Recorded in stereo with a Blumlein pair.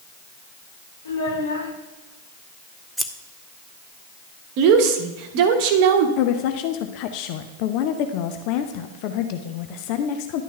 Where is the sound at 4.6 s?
45° right, 1.0 m.